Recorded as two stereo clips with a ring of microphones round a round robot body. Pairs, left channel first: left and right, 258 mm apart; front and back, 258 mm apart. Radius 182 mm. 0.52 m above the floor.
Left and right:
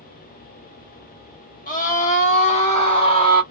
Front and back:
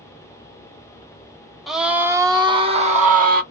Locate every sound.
1.7 s a scream: 90° left, 1.4 m; by 3.4 s 155° left, 1.5 m